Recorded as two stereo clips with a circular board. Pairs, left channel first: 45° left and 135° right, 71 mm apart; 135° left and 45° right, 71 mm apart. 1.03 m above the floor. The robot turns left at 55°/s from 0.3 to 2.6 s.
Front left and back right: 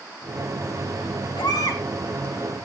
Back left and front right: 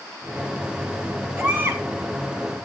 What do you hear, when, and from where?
1.4 s a baby crying: 40° left, 4 m; by 1.8 s 15° left, 4 m